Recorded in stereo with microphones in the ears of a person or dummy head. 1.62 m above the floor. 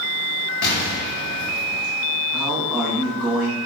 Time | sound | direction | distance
0.6 | an explosion | 55° left (ahead or behind) | 1.0 m
2.3 | a man speaking | 5° left (ahead or behind) | 0.9 m